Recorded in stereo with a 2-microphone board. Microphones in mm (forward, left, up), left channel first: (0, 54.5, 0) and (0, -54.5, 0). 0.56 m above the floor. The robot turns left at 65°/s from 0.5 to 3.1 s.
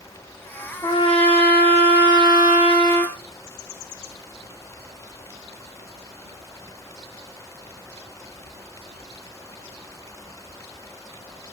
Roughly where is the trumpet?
Behind left.